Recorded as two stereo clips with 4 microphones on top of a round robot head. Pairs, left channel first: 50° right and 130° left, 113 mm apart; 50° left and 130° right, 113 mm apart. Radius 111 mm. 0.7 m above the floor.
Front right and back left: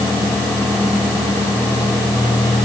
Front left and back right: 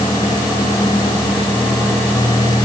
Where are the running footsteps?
I don't hear running footsteps.